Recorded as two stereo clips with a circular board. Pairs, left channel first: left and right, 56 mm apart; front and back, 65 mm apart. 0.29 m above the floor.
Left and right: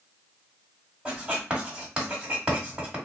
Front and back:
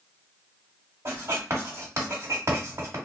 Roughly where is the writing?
Behind.